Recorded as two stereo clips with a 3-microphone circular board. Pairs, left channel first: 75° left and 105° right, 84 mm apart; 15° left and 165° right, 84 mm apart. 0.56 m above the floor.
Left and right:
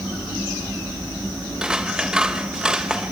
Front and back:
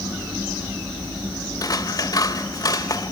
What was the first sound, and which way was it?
Scissors, 25° right.